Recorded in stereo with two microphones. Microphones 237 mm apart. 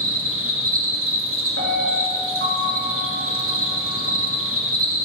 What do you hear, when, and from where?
0.0 s an insect: 65° right (ahead or behind), 1.1 m
1.6 s a piano: 65° right (ahead or behind), 1.4 m